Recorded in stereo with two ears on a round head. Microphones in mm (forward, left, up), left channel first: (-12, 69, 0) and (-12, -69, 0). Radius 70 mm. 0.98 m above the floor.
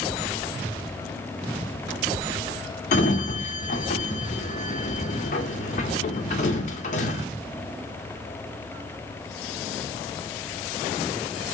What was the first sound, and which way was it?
A sliding door, 45° left (ahead or behind).